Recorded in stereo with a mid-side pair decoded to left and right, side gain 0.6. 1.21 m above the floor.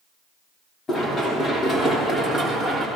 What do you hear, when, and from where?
0.9 s running footsteps: 30° left, 6 m; by 2.9 s 15° left, 6.5 m